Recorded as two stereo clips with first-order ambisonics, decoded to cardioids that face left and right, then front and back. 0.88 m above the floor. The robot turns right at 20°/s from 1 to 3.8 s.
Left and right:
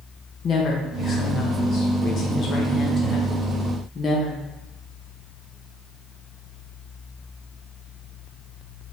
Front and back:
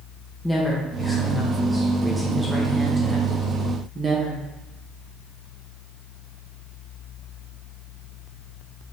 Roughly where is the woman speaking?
Left.